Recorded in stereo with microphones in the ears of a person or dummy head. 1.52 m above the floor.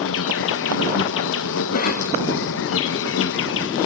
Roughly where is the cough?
Left.